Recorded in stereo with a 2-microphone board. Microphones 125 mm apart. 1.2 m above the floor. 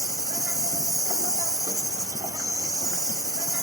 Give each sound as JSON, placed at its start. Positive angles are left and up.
{"t": 0.0, "sound": "an insect", "side_deg": -30, "distance_m": 1.4}